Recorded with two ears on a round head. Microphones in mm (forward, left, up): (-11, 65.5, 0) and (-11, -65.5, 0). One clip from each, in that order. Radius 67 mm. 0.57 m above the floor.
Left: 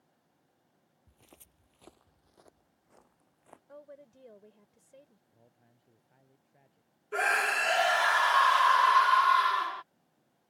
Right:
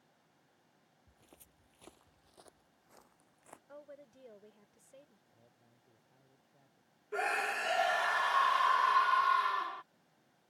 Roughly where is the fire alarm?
I don't hear a fire alarm.